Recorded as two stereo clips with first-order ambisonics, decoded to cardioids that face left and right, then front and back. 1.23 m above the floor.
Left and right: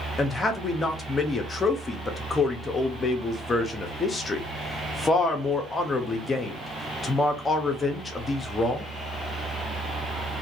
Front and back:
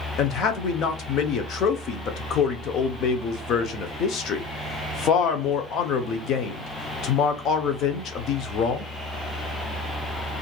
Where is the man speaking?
20° left, 0.6 m.